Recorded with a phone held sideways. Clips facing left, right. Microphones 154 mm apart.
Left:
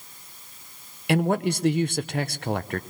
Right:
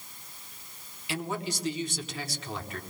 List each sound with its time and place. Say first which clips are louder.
1.1 s a man speaking: left 11 dB; 60° left (ahead or behind), 0.8 m